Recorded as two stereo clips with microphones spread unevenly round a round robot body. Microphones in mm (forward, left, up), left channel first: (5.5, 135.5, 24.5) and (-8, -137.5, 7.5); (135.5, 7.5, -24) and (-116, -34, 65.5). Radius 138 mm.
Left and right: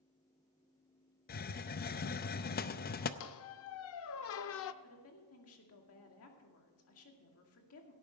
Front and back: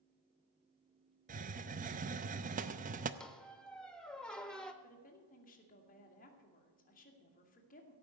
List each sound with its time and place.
1.3 s a hiss: 120° left, 0.6 m
3.2 s a squeak: 110° left, 0.5 m
4.8 s a woman speaking: 50° left, 2 m